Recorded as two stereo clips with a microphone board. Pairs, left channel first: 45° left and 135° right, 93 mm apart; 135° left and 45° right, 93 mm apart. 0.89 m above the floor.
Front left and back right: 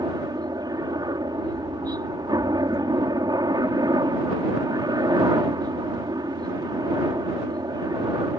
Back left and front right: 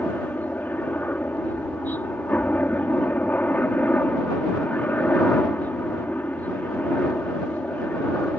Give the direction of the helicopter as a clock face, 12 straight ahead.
5 o'clock.